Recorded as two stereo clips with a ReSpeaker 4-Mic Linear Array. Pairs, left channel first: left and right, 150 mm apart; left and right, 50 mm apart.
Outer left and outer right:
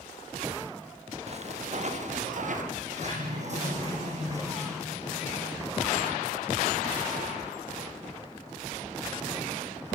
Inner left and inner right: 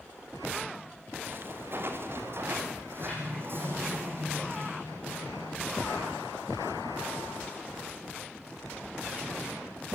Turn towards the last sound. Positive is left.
turn(degrees=-50)  # may be behind; listen again after turning